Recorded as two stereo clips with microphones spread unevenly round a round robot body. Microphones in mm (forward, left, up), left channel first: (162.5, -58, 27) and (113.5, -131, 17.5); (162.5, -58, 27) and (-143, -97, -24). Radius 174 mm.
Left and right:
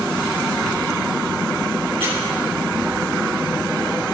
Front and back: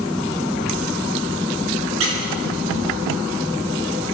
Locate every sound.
2.0 s a squeak: 160° right, 5 m